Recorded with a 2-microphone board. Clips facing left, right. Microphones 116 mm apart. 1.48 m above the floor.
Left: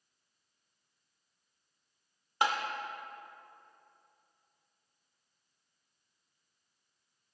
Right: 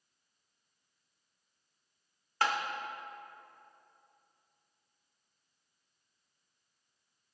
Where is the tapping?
15° left (ahead or behind), 0.9 m.